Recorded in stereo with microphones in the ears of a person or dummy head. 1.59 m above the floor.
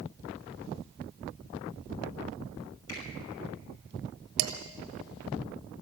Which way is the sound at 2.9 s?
80° left.